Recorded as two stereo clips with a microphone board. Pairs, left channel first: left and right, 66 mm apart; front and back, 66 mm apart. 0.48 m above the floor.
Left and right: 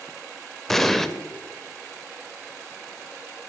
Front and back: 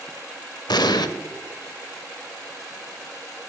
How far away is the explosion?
About 0.5 m.